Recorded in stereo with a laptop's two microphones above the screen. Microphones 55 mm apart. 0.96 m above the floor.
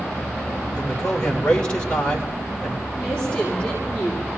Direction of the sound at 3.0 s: 15° left (ahead or behind).